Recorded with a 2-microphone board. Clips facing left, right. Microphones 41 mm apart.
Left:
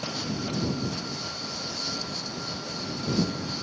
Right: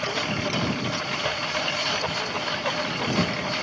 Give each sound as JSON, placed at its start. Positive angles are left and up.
{"t": 0.0, "sound": "a lawn mower", "side_deg": -90}